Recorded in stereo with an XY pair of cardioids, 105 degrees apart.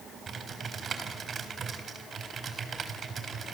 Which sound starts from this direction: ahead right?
Typing on a keyboard, at 0.3 s.